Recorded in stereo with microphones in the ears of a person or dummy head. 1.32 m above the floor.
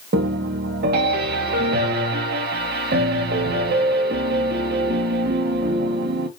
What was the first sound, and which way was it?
A piano, 45° right (ahead or behind).